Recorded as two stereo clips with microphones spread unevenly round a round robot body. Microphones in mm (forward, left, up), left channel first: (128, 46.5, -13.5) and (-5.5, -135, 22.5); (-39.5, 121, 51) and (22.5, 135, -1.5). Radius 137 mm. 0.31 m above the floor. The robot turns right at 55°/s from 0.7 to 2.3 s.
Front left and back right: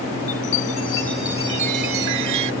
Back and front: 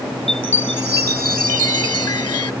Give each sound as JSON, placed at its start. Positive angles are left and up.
{"t": 0.3, "sound": "a chime", "azimuth_deg": 120}